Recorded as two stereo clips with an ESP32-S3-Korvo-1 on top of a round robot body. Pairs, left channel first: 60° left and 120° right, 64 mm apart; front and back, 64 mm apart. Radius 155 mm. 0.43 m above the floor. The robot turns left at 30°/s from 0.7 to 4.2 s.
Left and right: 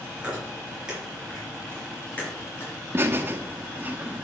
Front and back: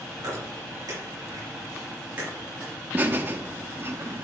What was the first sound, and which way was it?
Chewing, 165° left.